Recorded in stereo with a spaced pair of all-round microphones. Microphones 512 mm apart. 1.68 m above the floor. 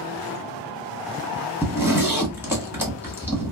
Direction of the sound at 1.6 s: 5° right (ahead or behind).